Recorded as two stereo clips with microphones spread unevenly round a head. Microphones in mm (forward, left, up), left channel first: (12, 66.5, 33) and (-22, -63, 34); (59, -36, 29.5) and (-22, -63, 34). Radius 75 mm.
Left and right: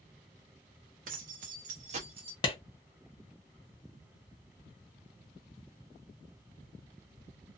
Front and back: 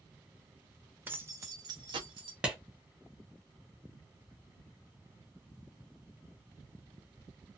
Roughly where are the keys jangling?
Right.